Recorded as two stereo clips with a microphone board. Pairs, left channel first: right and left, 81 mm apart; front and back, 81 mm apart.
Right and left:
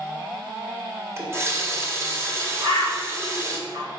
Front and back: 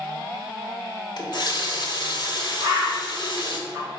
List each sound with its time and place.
1.2 s a running tap: 35° left, 1.5 m
2.6 s a bird: 115° left, 2 m